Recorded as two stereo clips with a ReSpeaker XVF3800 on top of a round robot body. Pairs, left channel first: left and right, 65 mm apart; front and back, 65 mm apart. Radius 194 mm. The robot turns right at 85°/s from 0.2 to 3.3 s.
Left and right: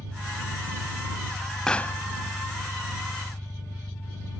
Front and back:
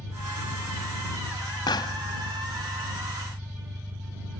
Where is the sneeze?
No sneeze in this recording.